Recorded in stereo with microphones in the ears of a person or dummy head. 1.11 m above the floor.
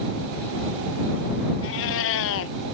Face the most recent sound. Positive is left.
turn(degrees=75)  # may be behind; listen again after turning